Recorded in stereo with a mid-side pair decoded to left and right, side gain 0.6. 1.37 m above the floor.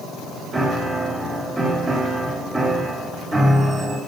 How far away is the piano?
About 3 m.